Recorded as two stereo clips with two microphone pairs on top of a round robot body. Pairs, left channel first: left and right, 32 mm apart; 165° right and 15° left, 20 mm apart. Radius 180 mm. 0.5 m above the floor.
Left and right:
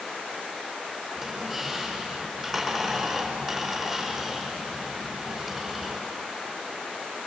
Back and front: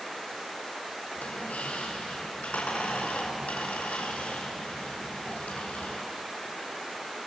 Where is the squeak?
165° right, 4 m.